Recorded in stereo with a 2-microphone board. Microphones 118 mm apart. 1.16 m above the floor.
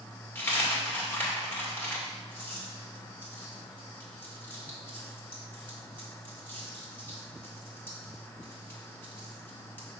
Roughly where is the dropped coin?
Centre.